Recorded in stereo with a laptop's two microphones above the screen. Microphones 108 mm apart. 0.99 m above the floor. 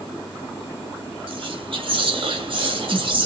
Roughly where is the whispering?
Right.